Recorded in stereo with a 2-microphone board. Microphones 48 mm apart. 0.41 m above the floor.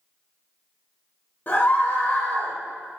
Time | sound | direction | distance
1.5 | a scream | 45° left (ahead or behind) | 1.3 m